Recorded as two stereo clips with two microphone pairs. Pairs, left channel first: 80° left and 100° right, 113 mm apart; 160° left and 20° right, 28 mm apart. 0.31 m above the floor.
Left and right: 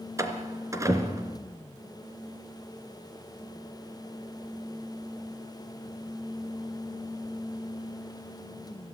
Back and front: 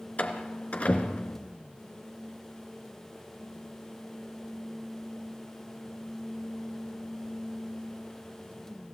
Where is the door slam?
160° right, 2.5 m.